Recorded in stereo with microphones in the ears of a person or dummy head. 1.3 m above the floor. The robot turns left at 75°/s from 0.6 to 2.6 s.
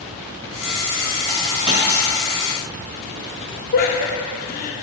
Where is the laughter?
50° left (ahead or behind), 0.8 m.